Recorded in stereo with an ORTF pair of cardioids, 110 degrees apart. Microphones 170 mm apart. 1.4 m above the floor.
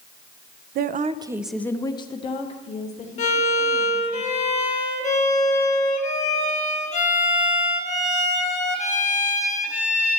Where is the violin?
45° left, 1.9 m.